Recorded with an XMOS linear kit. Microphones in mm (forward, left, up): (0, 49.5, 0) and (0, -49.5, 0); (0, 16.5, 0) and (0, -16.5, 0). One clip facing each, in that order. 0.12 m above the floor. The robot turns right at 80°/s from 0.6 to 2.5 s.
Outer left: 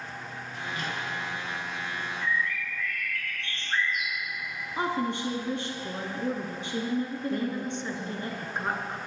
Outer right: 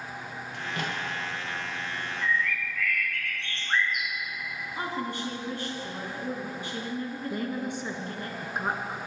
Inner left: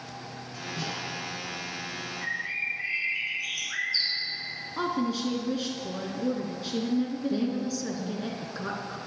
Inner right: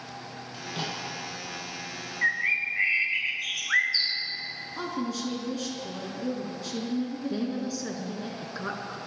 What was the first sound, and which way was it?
A microwave, 70° right (ahead or behind).